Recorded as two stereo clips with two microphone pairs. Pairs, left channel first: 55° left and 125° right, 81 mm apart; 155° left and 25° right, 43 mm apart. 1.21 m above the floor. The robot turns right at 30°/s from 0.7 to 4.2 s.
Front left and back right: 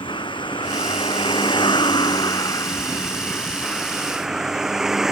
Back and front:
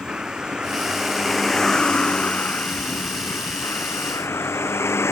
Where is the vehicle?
45° left; by 5.1 s 150° left.